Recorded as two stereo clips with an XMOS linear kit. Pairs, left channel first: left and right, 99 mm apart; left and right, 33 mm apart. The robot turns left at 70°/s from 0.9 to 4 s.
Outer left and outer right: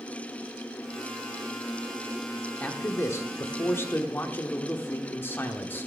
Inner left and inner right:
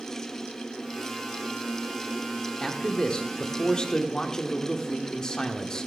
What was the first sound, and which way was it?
A man speaking, 15° left (ahead or behind).